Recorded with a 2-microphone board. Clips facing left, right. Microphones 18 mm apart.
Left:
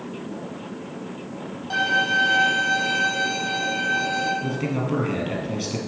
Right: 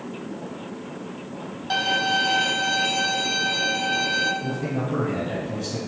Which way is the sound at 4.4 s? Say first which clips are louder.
Left 1 dB; 55° left (ahead or behind).